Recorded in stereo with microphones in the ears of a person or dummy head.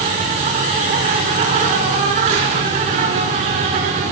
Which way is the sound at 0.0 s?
35° right (ahead or behind).